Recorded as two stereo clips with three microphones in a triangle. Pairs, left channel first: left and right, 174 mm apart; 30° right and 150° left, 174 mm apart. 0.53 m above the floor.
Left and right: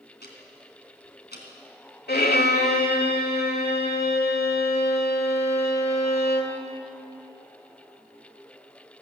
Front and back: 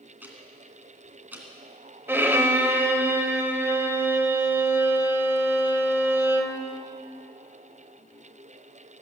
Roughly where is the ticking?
Left.